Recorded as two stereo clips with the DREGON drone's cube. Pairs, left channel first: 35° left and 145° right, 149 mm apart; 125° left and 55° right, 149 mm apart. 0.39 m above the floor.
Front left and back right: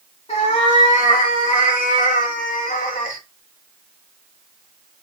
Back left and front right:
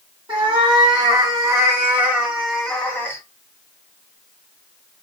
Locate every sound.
0.3 s a cat meowing: 5° right, 2 m; by 3.2 s 50° left, 1.4 m